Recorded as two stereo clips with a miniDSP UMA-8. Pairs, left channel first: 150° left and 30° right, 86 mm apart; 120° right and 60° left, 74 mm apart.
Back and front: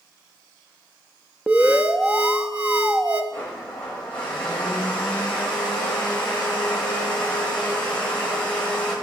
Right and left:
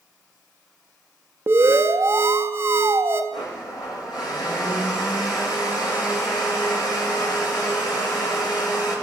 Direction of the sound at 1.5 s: 40° left.